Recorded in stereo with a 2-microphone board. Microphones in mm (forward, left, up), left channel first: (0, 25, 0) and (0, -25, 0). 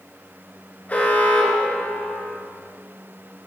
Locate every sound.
0.9 s an alarm: 30° left (ahead or behind), 1.7 m